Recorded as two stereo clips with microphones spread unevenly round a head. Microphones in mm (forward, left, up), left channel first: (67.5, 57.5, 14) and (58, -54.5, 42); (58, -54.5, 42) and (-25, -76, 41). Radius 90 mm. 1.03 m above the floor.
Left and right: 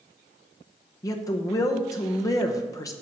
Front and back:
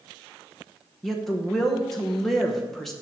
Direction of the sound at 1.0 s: 100° left.